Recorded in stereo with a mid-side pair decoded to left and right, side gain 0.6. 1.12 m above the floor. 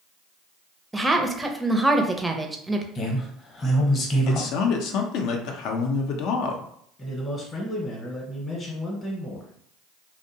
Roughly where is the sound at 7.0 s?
Ahead left.